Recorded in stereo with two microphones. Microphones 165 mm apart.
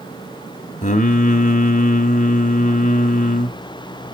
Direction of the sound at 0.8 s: 50° left (ahead or behind).